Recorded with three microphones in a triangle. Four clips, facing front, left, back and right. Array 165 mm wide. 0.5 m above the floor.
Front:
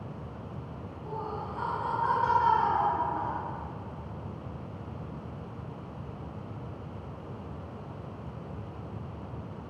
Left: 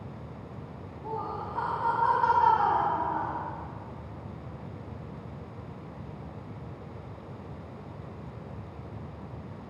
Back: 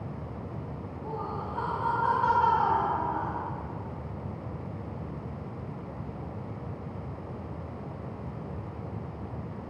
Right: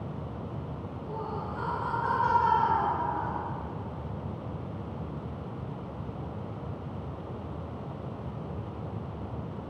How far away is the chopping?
No chopping in this recording.